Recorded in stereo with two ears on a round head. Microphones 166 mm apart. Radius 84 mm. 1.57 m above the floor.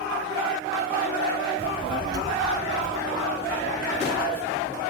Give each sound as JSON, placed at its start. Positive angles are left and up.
{"t": 1.6, "sound": "a child speaking", "side_deg": -35, "distance_m": 0.6}